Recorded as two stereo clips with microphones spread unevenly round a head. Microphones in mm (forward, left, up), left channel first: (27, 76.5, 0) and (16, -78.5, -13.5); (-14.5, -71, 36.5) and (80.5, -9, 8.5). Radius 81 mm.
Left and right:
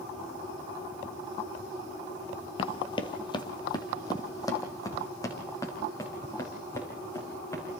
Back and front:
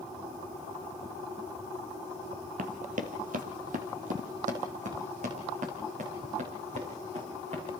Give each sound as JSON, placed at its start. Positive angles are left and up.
{"t": 2.6, "sound": "running footsteps", "azimuth_deg": 55, "distance_m": 1.5}